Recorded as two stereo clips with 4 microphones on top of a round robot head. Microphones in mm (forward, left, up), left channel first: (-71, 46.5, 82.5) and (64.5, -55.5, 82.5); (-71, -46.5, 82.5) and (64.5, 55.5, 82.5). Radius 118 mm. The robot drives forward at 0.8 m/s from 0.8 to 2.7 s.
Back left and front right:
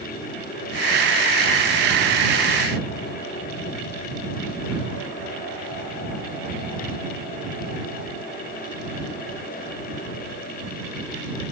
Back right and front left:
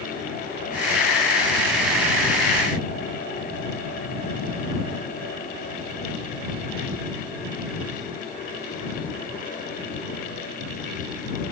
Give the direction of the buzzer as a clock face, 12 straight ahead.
I don't hear a buzzer.